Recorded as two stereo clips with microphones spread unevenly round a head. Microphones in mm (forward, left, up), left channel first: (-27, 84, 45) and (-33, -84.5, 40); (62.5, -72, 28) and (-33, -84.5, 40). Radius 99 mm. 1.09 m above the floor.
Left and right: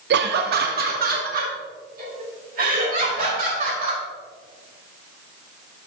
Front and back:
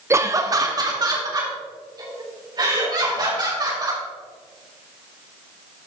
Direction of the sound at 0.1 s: 105° right.